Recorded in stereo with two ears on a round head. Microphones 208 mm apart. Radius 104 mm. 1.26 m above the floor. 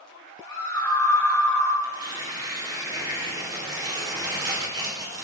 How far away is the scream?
About 2 m.